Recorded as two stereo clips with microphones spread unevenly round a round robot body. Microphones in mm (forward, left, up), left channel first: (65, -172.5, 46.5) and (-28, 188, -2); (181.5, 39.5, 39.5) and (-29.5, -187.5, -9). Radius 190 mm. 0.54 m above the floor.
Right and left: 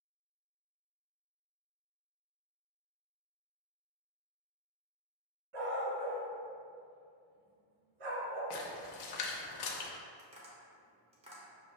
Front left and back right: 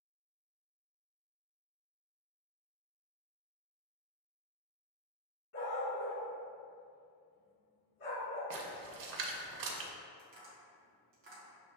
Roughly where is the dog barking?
Left.